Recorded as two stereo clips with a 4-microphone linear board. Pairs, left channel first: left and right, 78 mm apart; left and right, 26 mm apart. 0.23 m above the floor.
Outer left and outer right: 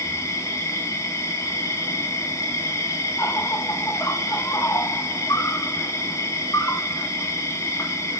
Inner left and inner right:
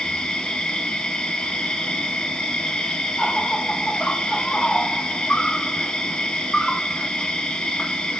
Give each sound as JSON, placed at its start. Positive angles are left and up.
{"t": 0.0, "sound": "an insect", "side_deg": 40, "distance_m": 0.8}